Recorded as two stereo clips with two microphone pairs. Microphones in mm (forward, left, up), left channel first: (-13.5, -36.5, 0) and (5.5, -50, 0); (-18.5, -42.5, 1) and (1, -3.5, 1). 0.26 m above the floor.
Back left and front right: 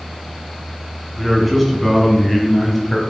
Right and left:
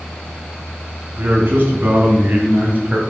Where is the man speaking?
55° left, 2.5 m; by 3.0 s 75° left, 1.5 m.